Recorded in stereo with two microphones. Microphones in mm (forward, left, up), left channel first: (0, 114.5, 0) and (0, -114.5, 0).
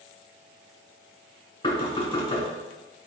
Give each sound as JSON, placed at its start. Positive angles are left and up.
{"t": 1.6, "sound": "knocking", "side_deg": 20, "distance_m": 1.5}